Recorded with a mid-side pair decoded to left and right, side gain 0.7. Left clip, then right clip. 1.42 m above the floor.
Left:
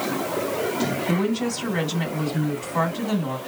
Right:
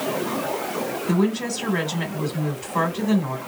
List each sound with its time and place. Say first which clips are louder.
1.1 s a woman speaking: right 1 dB; 15° right, 1.3 m